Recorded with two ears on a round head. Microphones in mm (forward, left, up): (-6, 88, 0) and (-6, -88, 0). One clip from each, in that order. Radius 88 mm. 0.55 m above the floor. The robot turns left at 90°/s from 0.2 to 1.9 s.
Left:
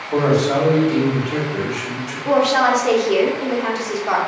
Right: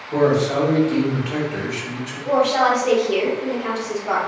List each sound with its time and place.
0.1 s a man speaking: 80° left, 1.4 m; by 2.1 s 70° right, 1.4 m
2.2 s a woman speaking: 35° left (ahead or behind), 1.1 m